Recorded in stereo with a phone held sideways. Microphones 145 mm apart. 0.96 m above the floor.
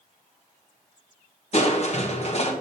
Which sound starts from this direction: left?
Crushing, at 1.5 s.